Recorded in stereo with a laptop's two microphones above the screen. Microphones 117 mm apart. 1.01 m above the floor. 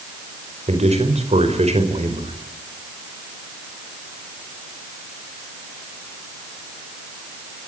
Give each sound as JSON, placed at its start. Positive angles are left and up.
{"t": 0.7, "sound": "a man speaking", "side_deg": -65, "distance_m": 4.5}